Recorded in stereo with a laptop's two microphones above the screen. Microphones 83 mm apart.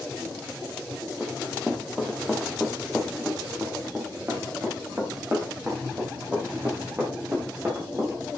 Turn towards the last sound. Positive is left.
turn(degrees=-30)  # may be behind; listen again after turning